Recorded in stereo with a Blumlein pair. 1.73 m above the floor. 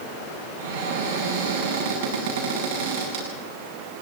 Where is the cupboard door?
55° right, 8.5 m.